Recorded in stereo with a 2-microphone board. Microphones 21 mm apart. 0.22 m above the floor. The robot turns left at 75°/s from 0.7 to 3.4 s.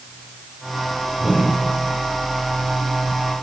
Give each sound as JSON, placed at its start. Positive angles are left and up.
{"t": 1.2, "sound": "a whoosh", "azimuth_deg": -150, "distance_m": 7.5}